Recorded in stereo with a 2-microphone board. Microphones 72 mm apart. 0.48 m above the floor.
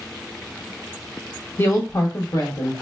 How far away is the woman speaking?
About 0.7 m.